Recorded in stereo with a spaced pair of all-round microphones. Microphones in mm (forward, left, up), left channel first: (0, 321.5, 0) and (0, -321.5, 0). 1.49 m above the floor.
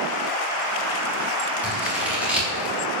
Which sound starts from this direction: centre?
Scissors, at 1.6 s.